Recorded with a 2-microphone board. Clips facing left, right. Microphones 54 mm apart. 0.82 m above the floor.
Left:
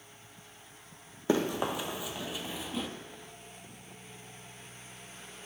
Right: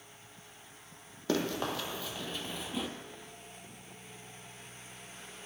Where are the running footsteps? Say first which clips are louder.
Left 3 dB; 20° left (ahead or behind), 1.2 m; by 2.9 s centre (ahead or behind), 0.8 m.